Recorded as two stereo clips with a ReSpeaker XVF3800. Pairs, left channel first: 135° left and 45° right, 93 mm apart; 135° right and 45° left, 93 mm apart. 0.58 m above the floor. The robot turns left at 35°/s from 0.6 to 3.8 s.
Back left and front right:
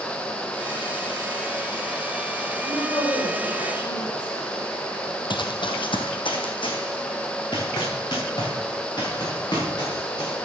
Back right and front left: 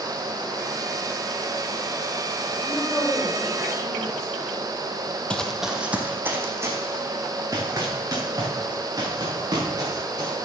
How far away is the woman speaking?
About 2.5 m.